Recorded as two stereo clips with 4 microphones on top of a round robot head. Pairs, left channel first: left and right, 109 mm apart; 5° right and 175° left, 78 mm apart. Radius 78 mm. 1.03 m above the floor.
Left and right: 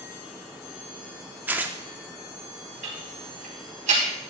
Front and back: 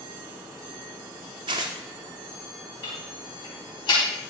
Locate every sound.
1.5 s tearing paper: 160° right, 0.7 m
2.8 s ticking: 55° right, 4 m